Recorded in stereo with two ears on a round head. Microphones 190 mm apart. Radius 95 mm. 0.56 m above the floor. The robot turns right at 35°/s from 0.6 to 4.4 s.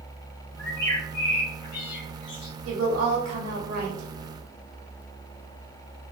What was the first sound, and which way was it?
A bird, 10° left (ahead or behind).